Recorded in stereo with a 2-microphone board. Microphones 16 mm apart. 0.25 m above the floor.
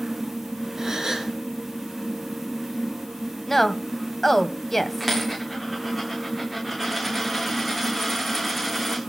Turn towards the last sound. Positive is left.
turn(degrees=-15)  # may be behind; listen again after turning